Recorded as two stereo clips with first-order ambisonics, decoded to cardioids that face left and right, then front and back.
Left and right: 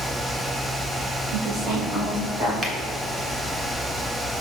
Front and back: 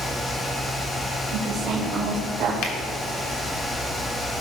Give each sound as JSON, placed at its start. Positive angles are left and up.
{"t": 1.3, "sound": "a woman speaking", "azimuth_deg": -125, "distance_m": 2.5}
{"t": 2.6, "sound": "a finger snap", "azimuth_deg": -25, "distance_m": 1.3}